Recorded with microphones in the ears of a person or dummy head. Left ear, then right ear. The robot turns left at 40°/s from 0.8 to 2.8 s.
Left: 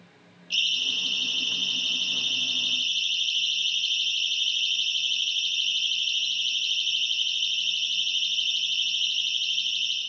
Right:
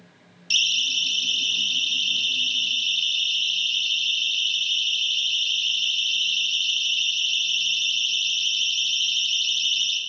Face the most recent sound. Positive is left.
turn(degrees=-80)